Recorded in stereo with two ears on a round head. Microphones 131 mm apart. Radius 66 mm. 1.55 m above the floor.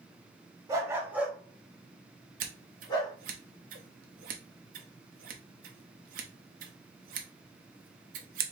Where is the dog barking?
20° right (ahead or behind), 1.1 m; by 3.1 s 30° left (ahead or behind), 1.6 m.